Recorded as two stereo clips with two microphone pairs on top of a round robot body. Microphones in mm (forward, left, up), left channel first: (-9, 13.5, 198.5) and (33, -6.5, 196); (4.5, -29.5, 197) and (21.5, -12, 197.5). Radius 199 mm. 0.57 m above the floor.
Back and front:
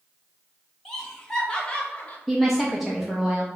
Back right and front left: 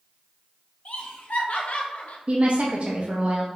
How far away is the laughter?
About 1.7 m.